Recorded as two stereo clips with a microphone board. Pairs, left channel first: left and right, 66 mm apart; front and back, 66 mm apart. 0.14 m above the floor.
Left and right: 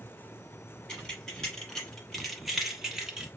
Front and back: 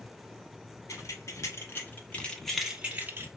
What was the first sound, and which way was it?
Keys jangling, 15° left.